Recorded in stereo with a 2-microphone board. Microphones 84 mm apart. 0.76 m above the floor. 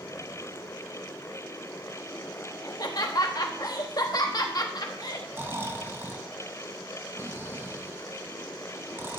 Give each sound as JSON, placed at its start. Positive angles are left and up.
{"t": 2.6, "sound": "laughter", "side_deg": 50, "distance_m": 1.0}
{"t": 5.3, "sound": "snoring", "side_deg": -25, "distance_m": 0.7}